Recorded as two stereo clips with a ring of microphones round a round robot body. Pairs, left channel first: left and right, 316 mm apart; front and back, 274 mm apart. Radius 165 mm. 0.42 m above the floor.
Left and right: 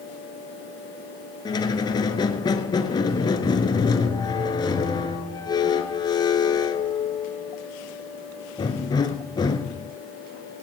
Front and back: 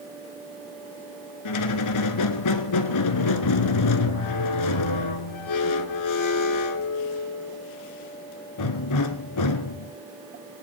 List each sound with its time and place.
1.4 s a squeak: 10° left, 1.1 m